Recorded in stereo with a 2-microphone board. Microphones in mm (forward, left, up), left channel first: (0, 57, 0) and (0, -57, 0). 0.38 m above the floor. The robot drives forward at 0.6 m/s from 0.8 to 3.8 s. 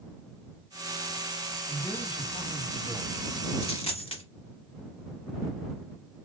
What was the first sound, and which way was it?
A man speaking, 45° left (ahead or behind).